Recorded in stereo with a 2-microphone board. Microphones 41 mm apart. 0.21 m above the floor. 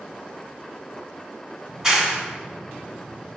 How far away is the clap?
About 1.5 m.